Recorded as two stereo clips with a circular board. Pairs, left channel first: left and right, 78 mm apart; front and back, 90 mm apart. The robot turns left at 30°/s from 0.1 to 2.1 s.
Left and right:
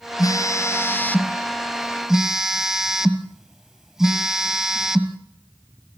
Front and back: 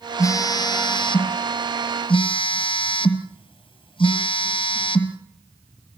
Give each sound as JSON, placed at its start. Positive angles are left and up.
{"t": 0.2, "sound": "a phone buzzing", "azimuth_deg": 50, "distance_m": 1.5}